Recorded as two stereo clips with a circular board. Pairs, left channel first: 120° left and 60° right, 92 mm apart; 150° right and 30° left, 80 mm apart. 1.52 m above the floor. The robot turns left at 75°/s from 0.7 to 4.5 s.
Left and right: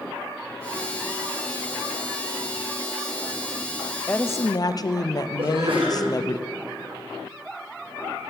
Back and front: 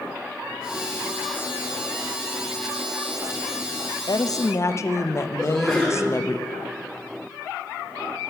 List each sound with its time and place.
4.1 s a woman speaking: 165° right, 0.5 m; by 6.4 s 165° left, 0.5 m
5.4 s a sneeze: 60° right, 4.5 m